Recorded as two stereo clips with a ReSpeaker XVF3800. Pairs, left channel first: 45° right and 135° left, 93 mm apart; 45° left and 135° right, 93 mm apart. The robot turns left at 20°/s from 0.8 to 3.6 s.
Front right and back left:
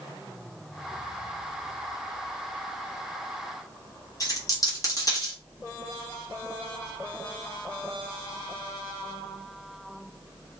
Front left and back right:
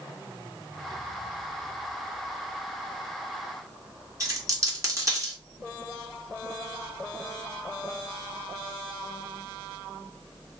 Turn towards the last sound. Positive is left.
turn(degrees=-85)